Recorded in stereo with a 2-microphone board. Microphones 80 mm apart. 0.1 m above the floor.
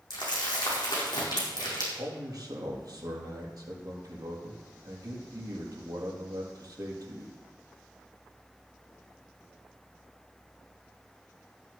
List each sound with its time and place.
0.1 s crumpling: 60° left (ahead or behind), 4.5 m
1.9 s a man speaking: 50° right (ahead or behind), 3.5 m